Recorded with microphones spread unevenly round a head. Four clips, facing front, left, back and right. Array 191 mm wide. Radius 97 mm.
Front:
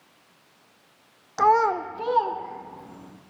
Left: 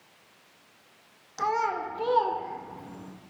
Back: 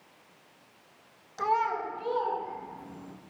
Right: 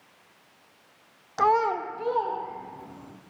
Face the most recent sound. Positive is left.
turn(degrees=65)